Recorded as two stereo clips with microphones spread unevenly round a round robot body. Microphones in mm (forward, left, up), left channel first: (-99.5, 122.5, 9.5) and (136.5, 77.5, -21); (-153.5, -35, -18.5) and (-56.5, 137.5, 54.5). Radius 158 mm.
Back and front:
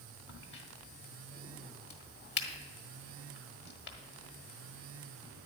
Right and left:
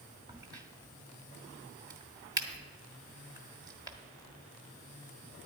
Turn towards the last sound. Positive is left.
turn(degrees=145)